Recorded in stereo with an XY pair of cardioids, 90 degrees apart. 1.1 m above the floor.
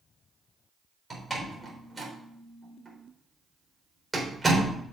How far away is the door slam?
About 3.5 m.